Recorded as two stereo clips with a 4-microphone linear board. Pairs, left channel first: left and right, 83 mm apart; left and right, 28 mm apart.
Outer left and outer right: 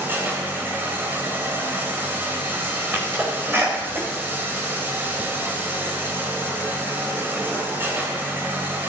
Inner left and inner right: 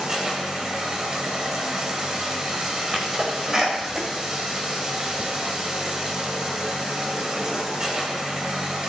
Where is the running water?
25° right (ahead or behind), 2.5 m.